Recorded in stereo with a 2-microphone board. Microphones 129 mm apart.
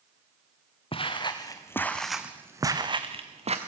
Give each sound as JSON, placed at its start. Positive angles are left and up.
{"t": 0.9, "sound": "footsteps", "side_deg": 45, "distance_m": 1.6}